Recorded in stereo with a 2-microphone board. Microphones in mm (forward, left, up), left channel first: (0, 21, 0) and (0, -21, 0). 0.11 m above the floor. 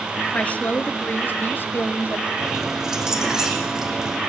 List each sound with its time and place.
0.3 s a woman speaking: 35° left (ahead or behind), 1.3 m; by 2.3 s 60° left (ahead or behind), 2 m
2.4 s keys jangling: 10° right (ahead or behind), 4.5 m